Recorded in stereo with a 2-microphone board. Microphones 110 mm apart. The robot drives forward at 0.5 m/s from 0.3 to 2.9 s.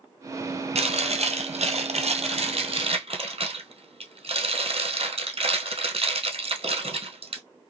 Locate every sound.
0.8 s chewing: 75° right (ahead or behind), 1.4 m; by 7.4 s 60° right (ahead or behind), 1.5 m